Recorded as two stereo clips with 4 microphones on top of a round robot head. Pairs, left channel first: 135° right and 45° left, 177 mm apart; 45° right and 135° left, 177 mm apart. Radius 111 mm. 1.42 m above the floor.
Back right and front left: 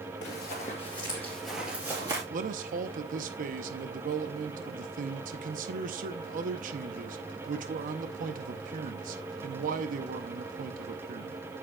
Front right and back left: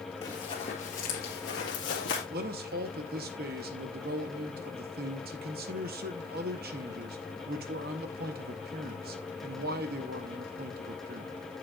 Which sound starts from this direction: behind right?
Running footsteps, at 0.2 s.